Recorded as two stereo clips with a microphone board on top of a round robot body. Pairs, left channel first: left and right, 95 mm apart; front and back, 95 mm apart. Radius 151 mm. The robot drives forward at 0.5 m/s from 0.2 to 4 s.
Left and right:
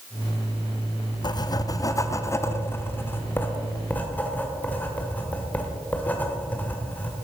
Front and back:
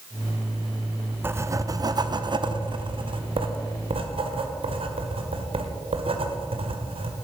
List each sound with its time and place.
1.2 s writing: 115° left, 0.8 m; by 7.2 s 165° left, 1.8 m